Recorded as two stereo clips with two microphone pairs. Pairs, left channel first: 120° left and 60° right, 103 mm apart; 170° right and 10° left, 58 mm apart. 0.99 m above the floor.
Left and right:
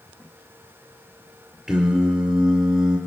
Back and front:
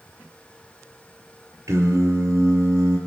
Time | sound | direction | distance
1.7 | singing | 25° left | 4.5 m